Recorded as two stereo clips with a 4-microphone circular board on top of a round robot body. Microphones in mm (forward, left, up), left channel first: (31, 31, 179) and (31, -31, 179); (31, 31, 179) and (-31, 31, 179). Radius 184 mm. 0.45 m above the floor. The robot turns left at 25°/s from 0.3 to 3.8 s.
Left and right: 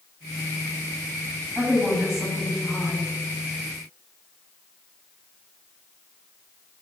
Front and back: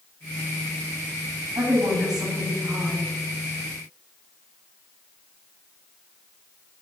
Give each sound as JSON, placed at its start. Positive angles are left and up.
{"t": 1.6, "sound": "a woman speaking", "azimuth_deg": -155, "distance_m": 5.5}